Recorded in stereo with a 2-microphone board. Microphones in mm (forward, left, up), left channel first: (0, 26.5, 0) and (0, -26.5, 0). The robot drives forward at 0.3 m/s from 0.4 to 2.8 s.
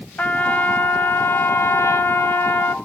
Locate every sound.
0.2 s a trumpet: 35° left (ahead or behind), 0.7 m; by 2.8 s 45° left (ahead or behind), 0.5 m